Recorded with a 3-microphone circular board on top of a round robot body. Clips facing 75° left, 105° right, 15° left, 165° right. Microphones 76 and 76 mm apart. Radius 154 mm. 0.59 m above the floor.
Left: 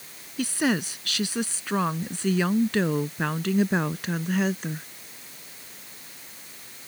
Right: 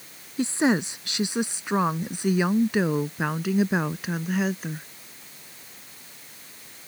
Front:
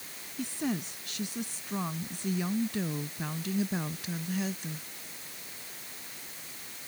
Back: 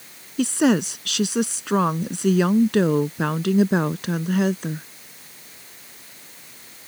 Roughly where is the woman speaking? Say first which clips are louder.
Right 3 dB, back 15 dB; behind.